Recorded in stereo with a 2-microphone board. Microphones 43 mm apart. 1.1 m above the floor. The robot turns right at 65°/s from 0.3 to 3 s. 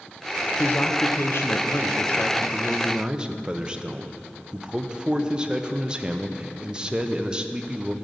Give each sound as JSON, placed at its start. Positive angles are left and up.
{"t": 0.6, "sound": "a man speaking", "azimuth_deg": 45, "distance_m": 0.6}